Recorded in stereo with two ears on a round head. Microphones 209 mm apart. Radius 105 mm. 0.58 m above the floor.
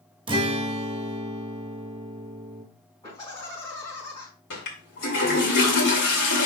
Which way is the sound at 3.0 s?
20° left (ahead or behind).